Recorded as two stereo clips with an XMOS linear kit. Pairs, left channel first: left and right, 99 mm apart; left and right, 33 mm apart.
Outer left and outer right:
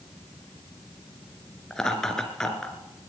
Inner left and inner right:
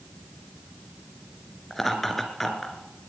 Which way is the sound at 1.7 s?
5° left (ahead or behind).